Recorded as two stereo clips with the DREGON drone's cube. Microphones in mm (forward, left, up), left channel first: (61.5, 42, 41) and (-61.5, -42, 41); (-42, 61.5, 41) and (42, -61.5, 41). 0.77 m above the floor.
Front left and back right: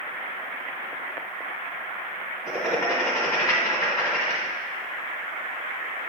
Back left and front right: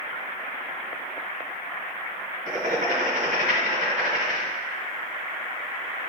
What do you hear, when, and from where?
2.5 s writing: 30° right, 1.3 m